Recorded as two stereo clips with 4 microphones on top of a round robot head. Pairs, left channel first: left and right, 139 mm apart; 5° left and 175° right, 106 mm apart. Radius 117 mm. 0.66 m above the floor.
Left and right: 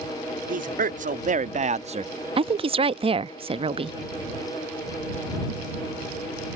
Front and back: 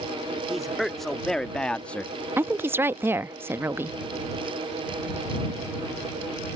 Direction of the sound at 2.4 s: 115° right.